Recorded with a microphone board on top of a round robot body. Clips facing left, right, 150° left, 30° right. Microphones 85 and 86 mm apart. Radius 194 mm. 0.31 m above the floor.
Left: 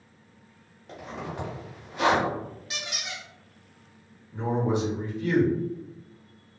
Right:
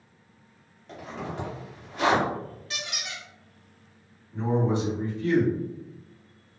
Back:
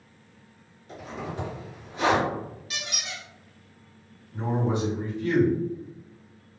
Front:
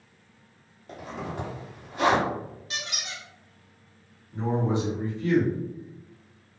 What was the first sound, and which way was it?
A zipper, 5° left.